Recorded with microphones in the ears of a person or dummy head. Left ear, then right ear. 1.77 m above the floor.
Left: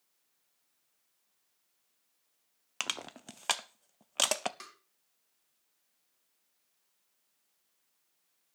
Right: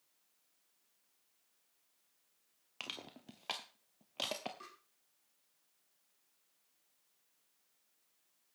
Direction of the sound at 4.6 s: 60° left (ahead or behind).